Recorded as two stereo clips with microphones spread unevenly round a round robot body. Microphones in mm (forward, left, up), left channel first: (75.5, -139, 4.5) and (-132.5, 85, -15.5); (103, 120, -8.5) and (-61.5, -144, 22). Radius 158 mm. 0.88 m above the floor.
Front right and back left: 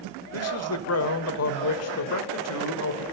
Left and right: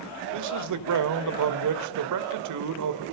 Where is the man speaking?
90° right, 3 m.